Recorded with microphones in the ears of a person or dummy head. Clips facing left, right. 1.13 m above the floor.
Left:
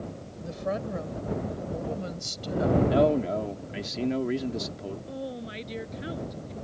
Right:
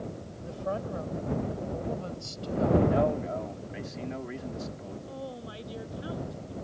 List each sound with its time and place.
0.4 s a woman speaking: 30° left (ahead or behind); by 2.8 s 20° left (ahead or behind)
2.9 s a man speaking: 50° left (ahead or behind)
5.1 s a woman speaking: 25° left (ahead or behind)